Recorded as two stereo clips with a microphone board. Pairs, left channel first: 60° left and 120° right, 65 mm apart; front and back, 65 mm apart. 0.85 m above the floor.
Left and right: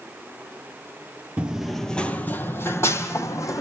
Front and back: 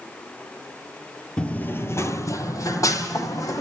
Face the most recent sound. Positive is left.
turn(degrees=25)